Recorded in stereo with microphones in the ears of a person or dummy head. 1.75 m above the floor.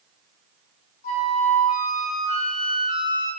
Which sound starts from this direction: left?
A flute, at 1.0 s.